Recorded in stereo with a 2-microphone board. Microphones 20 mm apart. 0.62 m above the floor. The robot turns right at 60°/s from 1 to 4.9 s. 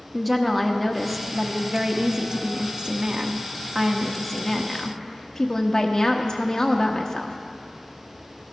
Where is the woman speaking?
175° left, 0.9 m; by 7.4 s 50° left, 0.9 m.